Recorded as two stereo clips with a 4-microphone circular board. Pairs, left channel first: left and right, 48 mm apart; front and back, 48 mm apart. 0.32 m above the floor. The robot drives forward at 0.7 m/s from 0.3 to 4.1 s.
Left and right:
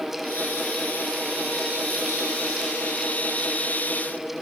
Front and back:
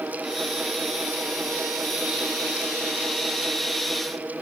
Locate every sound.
Only background noise.